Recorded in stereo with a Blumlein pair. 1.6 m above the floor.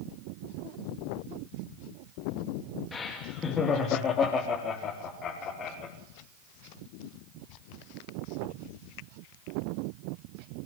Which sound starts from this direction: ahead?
Laughter, at 2.9 s.